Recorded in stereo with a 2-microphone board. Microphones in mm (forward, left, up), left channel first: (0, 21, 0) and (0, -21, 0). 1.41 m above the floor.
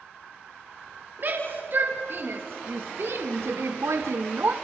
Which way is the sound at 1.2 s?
45° right (ahead or behind).